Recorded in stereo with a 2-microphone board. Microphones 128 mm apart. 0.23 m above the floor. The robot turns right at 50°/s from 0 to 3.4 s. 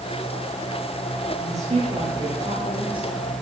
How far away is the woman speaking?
About 6.5 m.